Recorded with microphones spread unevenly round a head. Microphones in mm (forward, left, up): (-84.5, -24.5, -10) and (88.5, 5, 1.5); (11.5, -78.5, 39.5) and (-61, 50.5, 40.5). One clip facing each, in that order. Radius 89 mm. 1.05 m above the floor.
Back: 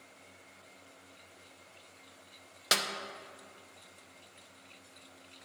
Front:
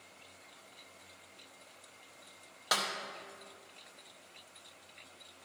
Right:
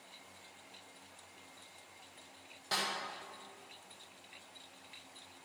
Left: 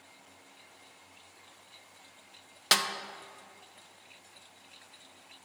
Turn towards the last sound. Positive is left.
turn(degrees=130)